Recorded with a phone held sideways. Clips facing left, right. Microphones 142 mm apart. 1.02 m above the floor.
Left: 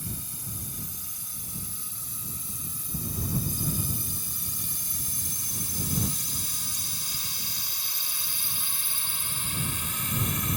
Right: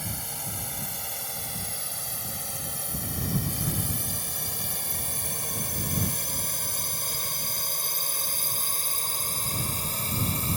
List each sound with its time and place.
0.0 s a drone: 80° right; by 10.6 s 35° right (ahead or behind)